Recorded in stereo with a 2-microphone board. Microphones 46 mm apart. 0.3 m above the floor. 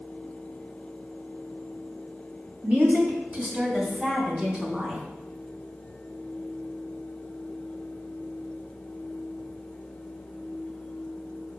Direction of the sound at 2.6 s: 35° right (ahead or behind).